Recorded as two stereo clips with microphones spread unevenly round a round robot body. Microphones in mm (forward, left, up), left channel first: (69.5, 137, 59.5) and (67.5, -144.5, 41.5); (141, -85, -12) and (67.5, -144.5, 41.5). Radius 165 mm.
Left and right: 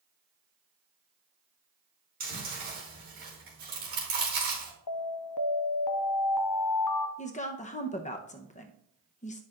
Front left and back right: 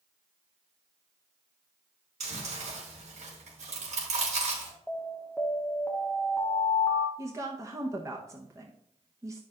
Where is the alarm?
125° left, 0.6 m.